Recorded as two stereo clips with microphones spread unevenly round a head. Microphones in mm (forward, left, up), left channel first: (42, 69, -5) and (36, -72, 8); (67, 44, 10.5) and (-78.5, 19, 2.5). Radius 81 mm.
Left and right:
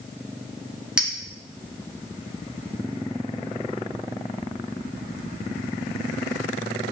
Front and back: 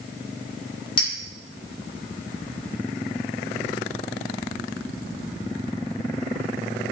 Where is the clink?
20° right, 0.6 m.